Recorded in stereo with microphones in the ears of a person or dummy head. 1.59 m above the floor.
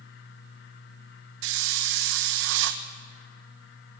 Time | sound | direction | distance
1.4 | a hiss | 70° right (ahead or behind) | 1.3 m